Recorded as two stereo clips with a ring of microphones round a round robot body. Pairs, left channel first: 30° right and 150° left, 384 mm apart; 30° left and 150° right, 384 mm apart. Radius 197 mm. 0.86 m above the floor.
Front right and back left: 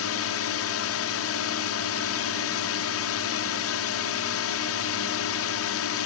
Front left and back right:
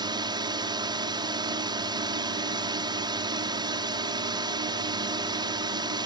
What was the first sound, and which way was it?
A drone, 75° right.